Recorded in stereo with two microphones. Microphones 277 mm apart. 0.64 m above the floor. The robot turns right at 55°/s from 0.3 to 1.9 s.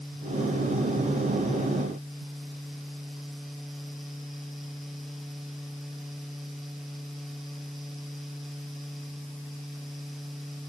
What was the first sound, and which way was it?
Only background noise.